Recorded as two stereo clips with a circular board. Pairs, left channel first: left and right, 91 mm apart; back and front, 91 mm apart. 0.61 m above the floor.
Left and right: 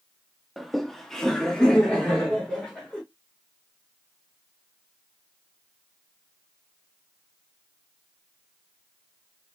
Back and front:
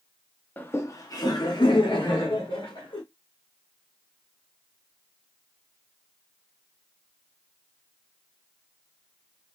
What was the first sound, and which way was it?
Laughter, 175° right.